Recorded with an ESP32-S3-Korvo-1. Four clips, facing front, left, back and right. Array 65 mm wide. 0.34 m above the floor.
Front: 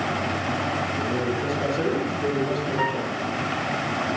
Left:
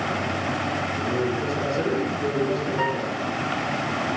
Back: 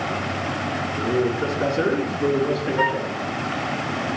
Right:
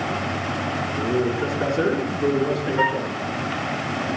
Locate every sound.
1.0 s a man speaking: 140° right, 4 m
2.8 s a flute: 125° right, 0.9 m